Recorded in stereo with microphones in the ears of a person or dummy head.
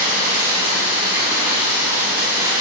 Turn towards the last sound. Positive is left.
turn(degrees=-15)  # may be behind; listen again after turning